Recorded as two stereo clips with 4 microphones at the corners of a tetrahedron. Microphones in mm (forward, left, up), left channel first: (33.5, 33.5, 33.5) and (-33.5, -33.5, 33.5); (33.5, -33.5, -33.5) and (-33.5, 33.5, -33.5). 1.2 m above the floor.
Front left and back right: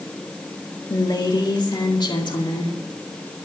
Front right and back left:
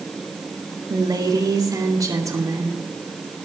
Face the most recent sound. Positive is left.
turn(degrees=80)